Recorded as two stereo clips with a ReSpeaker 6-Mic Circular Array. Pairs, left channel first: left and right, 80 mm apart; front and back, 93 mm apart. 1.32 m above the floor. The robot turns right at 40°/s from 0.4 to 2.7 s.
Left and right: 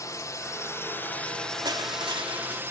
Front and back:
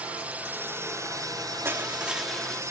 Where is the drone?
110° left; by 2.7 s 140° right.